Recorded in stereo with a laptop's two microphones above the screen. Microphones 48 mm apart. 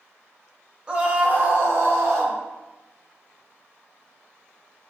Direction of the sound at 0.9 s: 20° right (ahead or behind).